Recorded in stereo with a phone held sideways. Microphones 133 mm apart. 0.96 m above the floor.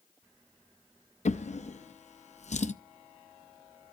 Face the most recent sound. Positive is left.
turn(degrees=60)  # may be behind; listen again after turning